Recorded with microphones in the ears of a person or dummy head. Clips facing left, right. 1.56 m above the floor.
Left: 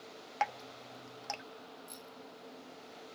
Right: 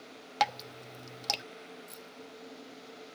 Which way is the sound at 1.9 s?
5° right (ahead or behind).